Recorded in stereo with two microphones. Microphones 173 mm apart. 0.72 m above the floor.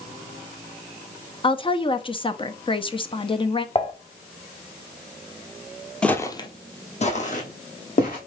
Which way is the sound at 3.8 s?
35° left (ahead or behind).